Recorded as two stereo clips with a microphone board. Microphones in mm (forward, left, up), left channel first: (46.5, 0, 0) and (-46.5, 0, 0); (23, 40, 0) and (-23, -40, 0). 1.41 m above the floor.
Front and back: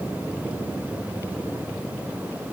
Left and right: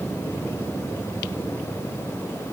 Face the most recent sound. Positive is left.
No sound to turn to.